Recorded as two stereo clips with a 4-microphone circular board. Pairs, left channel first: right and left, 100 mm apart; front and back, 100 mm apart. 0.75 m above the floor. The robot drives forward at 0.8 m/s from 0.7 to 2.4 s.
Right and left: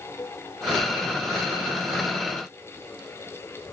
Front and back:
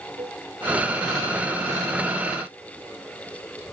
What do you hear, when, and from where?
0.2 s a cowbell: 145° right